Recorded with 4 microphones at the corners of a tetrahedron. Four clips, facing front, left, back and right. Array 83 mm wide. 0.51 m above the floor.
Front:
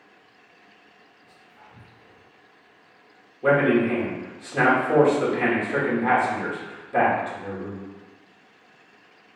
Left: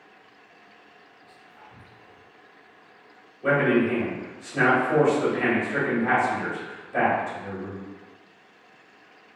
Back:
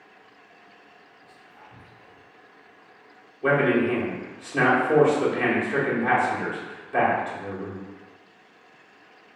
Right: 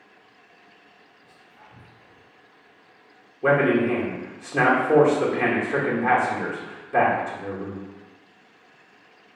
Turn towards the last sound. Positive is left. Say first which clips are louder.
# right 2 dB, front 2 dB
turn(degrees=-85)